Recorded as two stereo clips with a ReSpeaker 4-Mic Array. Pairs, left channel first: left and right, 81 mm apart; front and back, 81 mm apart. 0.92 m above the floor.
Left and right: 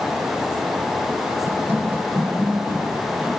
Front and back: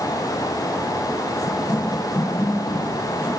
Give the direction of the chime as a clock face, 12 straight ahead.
I don't hear a chime.